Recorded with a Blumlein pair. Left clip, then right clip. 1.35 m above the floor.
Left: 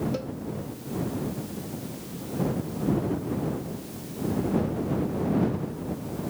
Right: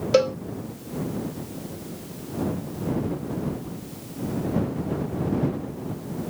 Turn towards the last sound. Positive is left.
turn(degrees=-55)